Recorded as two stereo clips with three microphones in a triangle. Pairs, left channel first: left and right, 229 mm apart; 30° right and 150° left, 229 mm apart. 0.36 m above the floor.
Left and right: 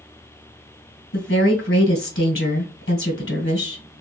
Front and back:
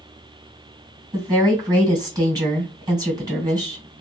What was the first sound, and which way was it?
A woman speaking, 80° left.